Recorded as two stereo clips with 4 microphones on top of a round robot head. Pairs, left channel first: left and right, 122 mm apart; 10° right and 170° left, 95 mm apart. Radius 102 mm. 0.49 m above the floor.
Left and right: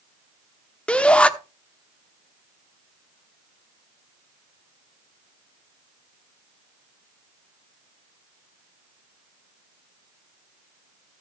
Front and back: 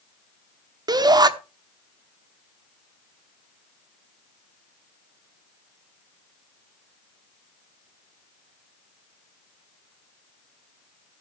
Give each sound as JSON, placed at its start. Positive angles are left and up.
{"t": 0.9, "sound": "a shout", "azimuth_deg": 165, "distance_m": 1.1}